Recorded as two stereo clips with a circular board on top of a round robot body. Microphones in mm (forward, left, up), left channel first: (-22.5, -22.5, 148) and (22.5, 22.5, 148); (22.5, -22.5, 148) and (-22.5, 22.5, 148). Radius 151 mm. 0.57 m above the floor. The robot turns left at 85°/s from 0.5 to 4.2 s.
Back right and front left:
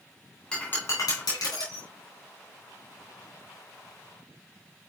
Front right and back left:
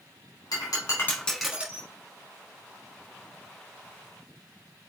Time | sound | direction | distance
0.5 | breaking glass | 55° right | 3 m